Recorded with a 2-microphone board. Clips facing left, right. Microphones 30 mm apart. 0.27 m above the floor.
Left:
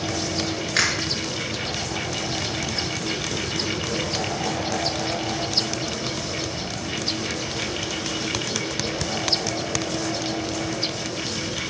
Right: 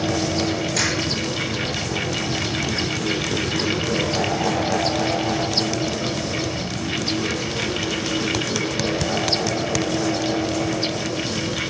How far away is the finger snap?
About 3.5 m.